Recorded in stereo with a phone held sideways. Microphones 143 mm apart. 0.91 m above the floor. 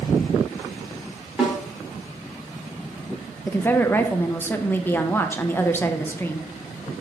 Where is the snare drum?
5° right (ahead or behind), 1.6 m.